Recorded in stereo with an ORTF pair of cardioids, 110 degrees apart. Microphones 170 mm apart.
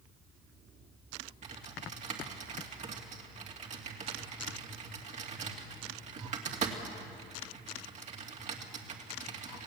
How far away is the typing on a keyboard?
About 2.5 m.